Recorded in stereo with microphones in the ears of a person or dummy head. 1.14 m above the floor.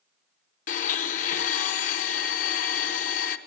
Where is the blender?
40° left (ahead or behind), 0.7 m.